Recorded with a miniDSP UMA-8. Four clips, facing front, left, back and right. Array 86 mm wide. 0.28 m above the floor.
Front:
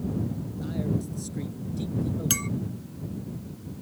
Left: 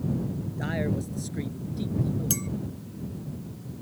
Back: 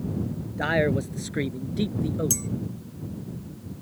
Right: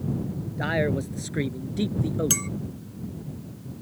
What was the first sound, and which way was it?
A man speaking, 160° right.